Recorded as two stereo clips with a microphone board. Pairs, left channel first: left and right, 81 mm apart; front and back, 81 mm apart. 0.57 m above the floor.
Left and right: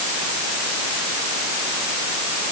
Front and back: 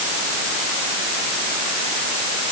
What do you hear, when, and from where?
Only background noise.